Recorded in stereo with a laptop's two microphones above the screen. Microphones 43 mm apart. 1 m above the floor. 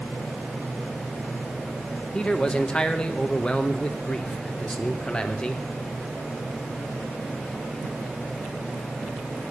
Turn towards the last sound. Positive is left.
turn(degrees=25)  # may be behind; listen again after turning